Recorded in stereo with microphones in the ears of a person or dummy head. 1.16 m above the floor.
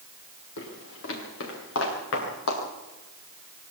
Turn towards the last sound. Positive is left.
turn(degrees=80)